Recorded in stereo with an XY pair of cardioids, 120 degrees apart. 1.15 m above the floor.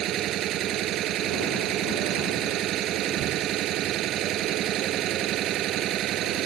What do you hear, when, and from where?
0.0 s an engine running: 65° right